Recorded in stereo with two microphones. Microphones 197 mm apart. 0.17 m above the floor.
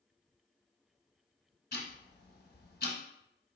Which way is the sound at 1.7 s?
55° left (ahead or behind).